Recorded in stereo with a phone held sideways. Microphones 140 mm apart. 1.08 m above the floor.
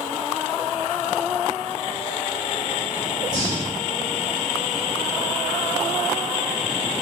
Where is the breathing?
25° right (ahead or behind), 1.4 m.